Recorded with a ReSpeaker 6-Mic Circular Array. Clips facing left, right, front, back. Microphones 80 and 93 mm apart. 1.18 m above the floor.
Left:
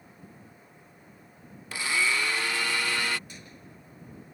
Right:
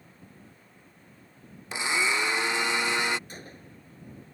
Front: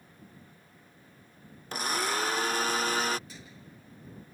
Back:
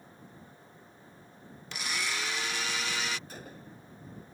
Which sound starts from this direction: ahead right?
A blender, at 1.7 s.